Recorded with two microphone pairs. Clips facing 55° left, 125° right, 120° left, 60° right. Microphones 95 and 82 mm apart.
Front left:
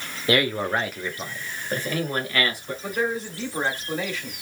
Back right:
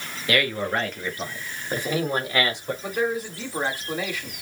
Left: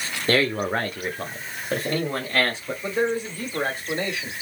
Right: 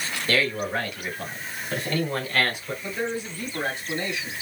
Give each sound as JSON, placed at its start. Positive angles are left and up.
{"t": 0.3, "sound": "a man speaking", "azimuth_deg": 105, "distance_m": 0.9}
{"t": 2.8, "sound": "a man speaking", "azimuth_deg": 160, "distance_m": 1.8}